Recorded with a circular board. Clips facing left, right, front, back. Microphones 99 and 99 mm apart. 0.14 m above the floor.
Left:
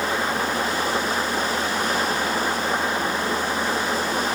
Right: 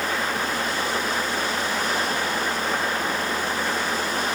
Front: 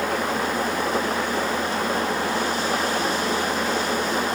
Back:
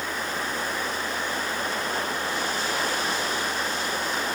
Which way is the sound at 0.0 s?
15° left.